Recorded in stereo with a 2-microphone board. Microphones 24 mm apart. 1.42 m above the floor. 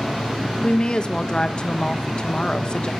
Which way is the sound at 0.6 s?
45° left (ahead or behind).